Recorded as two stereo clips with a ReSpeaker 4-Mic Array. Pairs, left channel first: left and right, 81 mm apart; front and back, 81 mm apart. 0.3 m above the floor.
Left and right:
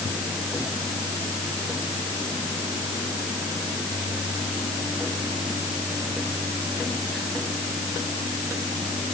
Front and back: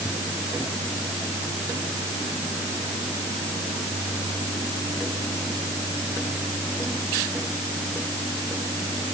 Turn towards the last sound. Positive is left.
No sound to turn to.